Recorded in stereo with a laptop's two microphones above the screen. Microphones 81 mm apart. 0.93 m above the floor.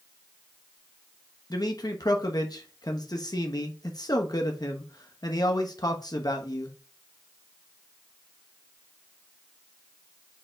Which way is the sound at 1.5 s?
55° left (ahead or behind).